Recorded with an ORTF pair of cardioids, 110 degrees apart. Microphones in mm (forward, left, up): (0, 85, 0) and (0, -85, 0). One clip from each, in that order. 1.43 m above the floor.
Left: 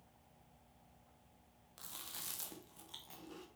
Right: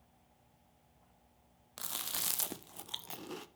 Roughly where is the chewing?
Ahead right.